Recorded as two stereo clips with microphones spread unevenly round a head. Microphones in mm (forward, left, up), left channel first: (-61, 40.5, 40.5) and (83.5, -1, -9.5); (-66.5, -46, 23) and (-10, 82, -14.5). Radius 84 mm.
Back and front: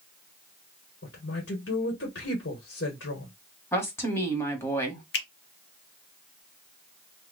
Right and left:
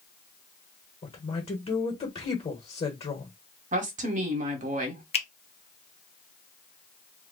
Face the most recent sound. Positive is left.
turn(degrees=-165)